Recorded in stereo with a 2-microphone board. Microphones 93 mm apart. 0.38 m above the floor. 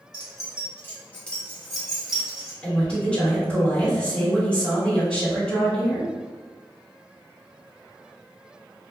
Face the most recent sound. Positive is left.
turn(degrees=10)  # may be behind; listen again after turning